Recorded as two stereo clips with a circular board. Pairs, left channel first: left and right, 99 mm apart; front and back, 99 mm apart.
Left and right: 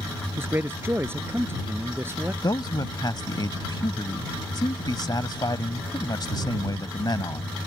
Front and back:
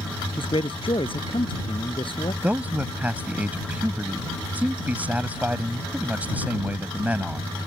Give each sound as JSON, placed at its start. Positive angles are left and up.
{"t": 0.4, "sound": "a man speaking", "azimuth_deg": -25}
{"t": 2.4, "sound": "a man speaking", "azimuth_deg": 115}